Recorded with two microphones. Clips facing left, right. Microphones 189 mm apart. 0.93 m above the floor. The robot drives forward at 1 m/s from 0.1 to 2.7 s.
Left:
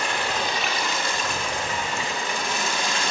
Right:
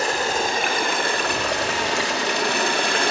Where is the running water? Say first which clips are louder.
Right 4 dB; 40° right (ahead or behind), 2.5 m; by 3.1 s 60° right (ahead or behind), 1.7 m.